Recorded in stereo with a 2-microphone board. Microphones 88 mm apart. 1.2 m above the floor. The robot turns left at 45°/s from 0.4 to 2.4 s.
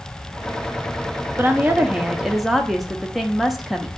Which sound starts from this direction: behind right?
A woman speaking, at 1.4 s.